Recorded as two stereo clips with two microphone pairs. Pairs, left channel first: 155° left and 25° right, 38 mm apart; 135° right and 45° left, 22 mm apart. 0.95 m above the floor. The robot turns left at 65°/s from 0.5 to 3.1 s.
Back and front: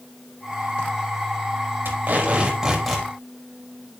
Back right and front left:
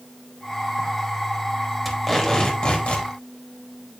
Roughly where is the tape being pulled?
Ahead right.